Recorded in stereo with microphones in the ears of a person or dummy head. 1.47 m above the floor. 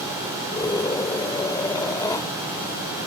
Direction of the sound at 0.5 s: 20° left (ahead or behind).